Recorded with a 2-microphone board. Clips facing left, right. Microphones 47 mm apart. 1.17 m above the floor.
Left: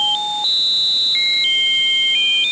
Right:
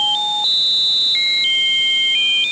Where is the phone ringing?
No phone ringing in this recording.